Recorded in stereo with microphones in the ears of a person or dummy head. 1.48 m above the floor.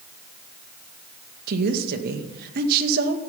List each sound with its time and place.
1.5 s a woman speaking: 55° right (ahead or behind), 2 m